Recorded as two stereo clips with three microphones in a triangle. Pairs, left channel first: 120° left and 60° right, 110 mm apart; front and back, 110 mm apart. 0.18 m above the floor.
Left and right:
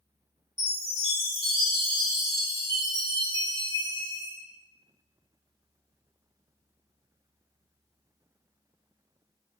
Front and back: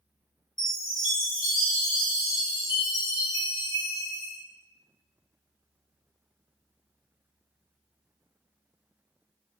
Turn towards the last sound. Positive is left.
turn(degrees=-40)